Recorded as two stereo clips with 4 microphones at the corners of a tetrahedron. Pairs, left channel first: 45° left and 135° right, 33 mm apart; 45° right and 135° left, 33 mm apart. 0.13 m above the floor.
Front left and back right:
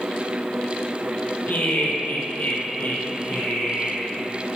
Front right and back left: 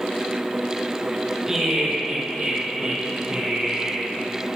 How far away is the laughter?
About 3.5 m.